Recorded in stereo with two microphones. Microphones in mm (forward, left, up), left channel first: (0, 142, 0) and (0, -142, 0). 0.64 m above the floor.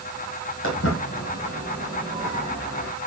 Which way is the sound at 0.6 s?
50° left (ahead or behind).